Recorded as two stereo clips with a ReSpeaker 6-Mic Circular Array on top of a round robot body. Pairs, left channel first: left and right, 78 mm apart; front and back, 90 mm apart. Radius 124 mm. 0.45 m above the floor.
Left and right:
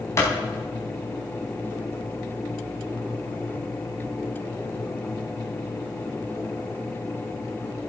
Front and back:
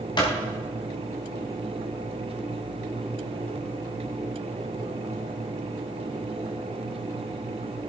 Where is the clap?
35° left, 4.5 m.